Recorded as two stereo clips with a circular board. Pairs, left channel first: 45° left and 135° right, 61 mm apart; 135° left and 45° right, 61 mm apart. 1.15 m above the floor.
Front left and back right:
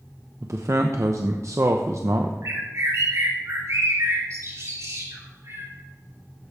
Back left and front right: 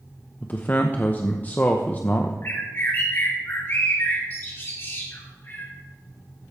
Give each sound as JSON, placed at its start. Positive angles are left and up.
{"t": 0.4, "sound": "a man speaking", "azimuth_deg": -165, "distance_m": 0.8}
{"t": 2.4, "sound": "a bird", "azimuth_deg": -175, "distance_m": 3.0}